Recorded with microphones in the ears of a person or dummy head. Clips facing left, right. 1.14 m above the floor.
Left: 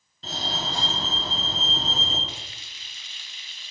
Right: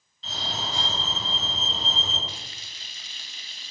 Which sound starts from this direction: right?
Frying, at 2.3 s.